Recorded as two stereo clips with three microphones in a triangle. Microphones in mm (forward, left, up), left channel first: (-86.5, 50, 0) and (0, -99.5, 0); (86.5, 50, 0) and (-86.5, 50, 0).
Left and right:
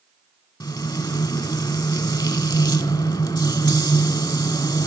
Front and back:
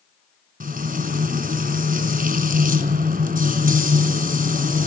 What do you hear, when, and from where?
0.6 s frying: straight behind, 2.5 m